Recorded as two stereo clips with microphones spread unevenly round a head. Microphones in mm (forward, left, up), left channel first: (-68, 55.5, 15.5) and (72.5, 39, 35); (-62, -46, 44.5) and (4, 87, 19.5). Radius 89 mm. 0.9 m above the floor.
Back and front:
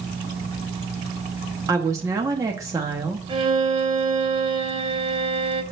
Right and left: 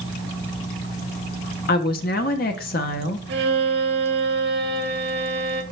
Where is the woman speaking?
80° right, 1.0 m.